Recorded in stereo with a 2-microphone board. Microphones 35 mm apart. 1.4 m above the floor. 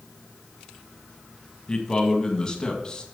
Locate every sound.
1.7 s a man speaking: 25° left (ahead or behind), 1.8 m